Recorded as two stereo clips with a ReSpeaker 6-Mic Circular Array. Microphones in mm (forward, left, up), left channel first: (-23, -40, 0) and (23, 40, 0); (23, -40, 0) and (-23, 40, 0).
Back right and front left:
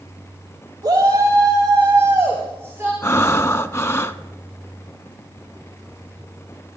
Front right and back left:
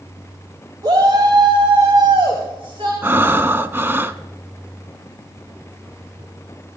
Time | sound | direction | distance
0.8 | a shout | 95° left | 1.5 m
3.0 | breathing | straight behind | 0.6 m